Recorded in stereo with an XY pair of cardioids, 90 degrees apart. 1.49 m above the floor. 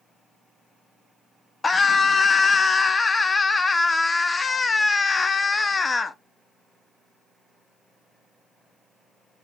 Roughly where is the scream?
Ahead left.